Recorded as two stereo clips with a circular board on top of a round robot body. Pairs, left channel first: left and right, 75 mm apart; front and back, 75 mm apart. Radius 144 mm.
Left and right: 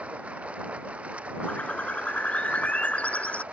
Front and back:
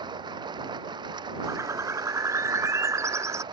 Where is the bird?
155° left.